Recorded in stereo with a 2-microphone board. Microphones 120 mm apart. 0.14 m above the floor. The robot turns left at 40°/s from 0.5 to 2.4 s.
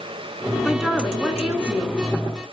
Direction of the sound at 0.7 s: 5° left (ahead or behind).